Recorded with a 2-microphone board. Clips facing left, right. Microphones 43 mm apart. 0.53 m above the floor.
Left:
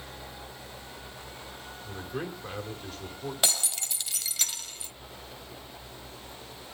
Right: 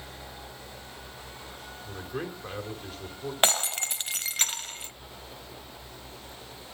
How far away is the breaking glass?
About 1.1 m.